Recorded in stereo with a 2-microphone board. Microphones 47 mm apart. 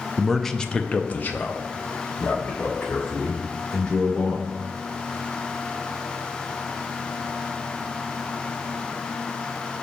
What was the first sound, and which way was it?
A man speaking, 5° right (ahead or behind).